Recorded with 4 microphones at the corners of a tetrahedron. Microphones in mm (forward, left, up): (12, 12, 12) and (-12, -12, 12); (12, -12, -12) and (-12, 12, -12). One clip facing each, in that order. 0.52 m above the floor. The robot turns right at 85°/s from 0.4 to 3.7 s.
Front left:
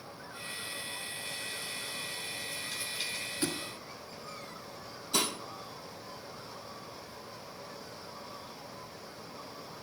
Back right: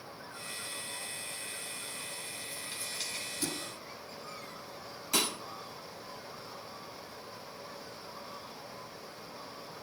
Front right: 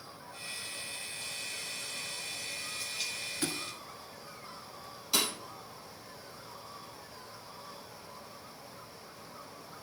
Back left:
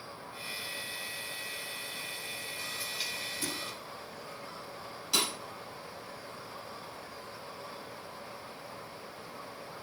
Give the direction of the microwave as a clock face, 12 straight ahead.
No microwave in this recording.